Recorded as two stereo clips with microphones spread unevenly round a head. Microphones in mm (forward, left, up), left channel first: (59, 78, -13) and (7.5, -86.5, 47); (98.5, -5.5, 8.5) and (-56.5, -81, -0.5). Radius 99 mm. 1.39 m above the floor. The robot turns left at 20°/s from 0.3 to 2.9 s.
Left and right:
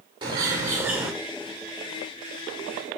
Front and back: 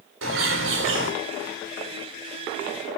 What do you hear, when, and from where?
0.2 s a bird: 175° right, 5.5 m; by 1.1 s 170° left, 5.5 m